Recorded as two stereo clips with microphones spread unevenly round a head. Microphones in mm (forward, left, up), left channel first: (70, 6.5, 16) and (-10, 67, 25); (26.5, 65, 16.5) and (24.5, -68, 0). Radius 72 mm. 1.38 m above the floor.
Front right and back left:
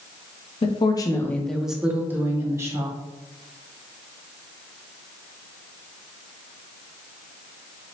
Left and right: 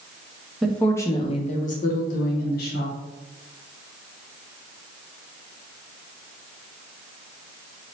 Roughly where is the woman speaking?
Ahead.